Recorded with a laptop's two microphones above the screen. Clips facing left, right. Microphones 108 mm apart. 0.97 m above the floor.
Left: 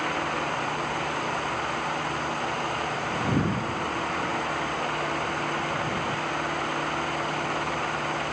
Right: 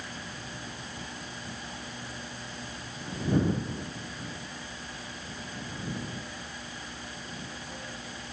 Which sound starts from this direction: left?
A fan, at 0.0 s.